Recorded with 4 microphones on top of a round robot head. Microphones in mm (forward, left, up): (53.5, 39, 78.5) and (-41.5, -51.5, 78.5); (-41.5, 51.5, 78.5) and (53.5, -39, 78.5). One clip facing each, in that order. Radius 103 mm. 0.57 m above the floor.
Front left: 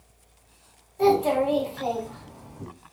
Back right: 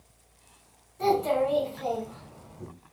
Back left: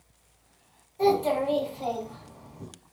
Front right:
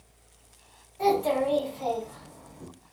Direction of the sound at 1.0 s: 75° left.